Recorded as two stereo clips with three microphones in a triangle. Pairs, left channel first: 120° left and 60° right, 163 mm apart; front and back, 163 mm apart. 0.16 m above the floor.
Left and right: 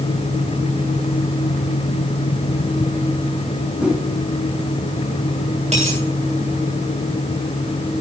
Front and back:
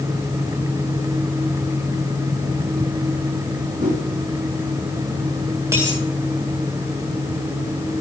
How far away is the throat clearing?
I don't hear throat clearing.